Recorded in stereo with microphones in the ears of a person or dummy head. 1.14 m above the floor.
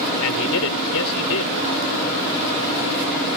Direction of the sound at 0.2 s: 75° left (ahead or behind).